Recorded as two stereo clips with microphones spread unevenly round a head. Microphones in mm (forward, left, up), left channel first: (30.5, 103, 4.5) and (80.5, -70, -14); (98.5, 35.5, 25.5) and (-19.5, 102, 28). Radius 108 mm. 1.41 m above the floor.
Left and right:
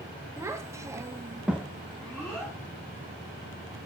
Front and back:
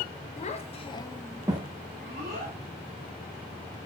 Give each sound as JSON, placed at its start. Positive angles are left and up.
{"t": 0.4, "sound": "a child speaking", "azimuth_deg": 5, "distance_m": 1.1}